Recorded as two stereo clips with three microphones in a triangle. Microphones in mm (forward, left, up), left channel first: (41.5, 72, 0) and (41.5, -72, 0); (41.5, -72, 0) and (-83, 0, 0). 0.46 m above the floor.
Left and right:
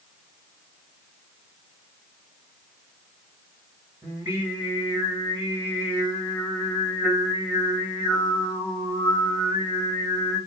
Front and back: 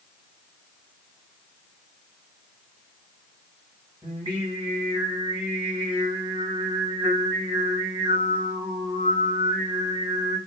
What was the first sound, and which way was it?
Singing, 160° right.